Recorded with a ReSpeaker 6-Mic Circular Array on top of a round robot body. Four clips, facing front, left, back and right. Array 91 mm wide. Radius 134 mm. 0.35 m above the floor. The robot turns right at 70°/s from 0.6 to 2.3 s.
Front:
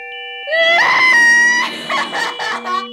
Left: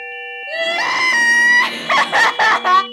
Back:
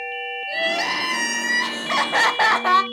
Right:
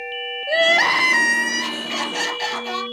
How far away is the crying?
About 0.8 m.